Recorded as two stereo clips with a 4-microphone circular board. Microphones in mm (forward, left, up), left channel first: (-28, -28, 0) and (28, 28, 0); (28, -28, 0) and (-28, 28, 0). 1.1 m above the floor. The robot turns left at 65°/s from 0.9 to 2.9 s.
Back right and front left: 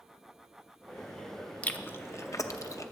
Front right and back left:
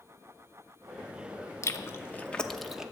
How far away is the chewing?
About 0.7 m.